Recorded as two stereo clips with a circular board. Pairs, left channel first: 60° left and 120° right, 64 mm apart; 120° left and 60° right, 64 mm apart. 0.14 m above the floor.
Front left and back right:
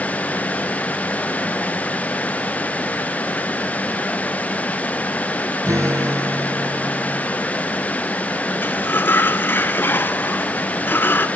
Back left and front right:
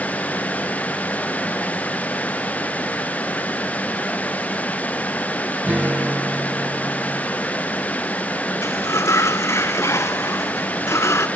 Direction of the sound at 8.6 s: 105° left.